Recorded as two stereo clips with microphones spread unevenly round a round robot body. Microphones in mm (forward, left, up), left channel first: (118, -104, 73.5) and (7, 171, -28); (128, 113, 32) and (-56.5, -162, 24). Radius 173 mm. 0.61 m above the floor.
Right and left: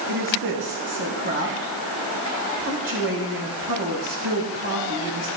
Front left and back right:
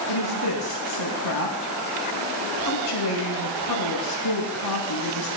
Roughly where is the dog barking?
No dog barking in this recording.